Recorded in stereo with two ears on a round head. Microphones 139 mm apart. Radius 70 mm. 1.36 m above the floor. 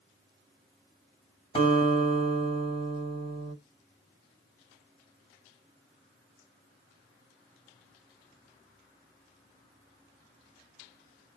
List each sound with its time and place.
1.6 s a guitar: 40° left (ahead or behind), 1.5 m